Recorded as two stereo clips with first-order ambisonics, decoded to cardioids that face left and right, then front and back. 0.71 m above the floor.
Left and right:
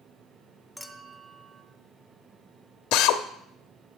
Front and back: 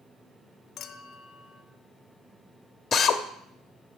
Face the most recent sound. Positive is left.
turn(degrees=70)